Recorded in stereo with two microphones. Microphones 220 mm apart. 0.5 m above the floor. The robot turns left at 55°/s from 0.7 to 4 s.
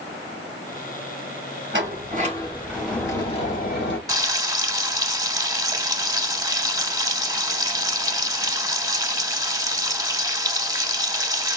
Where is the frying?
15° right (ahead or behind), 0.9 m.